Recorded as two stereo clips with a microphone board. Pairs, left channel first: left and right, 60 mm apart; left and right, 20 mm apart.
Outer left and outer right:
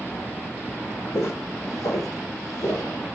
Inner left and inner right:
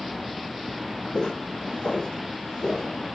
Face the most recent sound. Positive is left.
turn(degrees=60)  # may be behind; listen again after turning